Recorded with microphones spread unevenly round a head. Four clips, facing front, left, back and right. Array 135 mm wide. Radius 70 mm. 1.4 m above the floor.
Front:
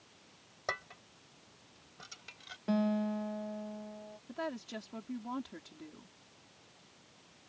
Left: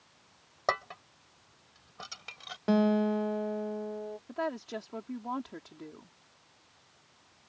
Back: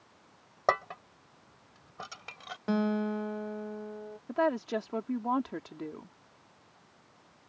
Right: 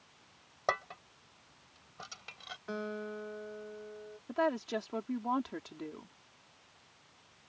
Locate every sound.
0.7 s dishes clattering: 170° left
2.7 s a guitar: 100° left
4.3 s a woman speaking: 170° right